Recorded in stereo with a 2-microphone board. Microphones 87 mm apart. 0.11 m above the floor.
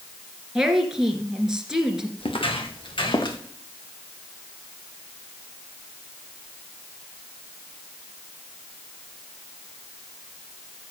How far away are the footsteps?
About 2 m.